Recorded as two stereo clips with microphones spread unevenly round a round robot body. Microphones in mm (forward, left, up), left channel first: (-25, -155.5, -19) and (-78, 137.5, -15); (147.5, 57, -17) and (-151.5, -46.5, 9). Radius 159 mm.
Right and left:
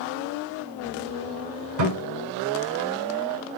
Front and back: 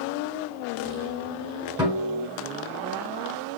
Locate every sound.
1.8 s a guitar: 120° left, 4.5 m